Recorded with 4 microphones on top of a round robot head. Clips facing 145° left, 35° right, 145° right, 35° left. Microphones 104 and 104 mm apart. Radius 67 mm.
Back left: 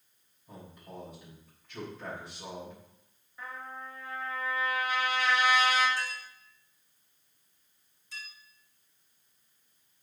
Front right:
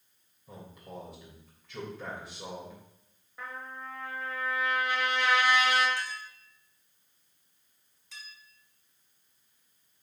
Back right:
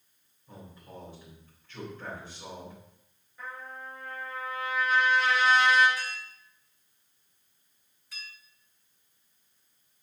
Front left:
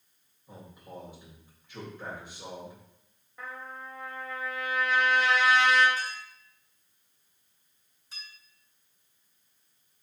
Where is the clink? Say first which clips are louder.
Even, front left 2 dB; 30° right, 4 m.